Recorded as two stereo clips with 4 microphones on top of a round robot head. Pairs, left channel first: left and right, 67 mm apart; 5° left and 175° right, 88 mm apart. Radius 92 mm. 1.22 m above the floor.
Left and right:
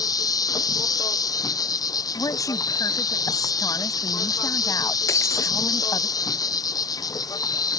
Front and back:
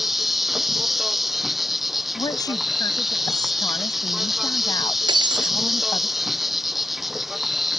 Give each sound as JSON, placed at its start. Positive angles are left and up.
{"t": 0.0, "sound": "an insect", "azimuth_deg": 95}
{"t": 2.1, "sound": "a woman speaking", "azimuth_deg": 50}
{"t": 5.1, "sound": "breaking glass", "azimuth_deg": 145}